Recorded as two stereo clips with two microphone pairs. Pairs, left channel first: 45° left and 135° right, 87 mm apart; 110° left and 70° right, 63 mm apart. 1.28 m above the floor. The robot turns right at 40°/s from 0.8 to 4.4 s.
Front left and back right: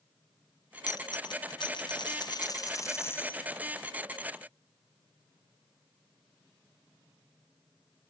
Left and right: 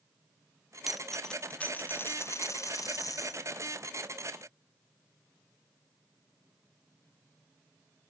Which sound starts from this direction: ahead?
A dropped coin, at 0.9 s.